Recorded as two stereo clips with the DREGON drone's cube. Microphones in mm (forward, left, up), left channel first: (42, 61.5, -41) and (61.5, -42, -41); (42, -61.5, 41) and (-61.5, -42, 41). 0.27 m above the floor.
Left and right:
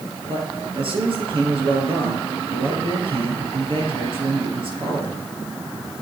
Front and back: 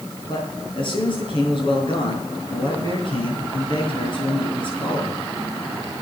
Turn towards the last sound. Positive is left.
turn(degrees=-50)